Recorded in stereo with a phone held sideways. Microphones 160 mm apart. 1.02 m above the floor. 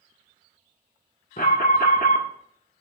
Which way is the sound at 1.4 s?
60° left (ahead or behind).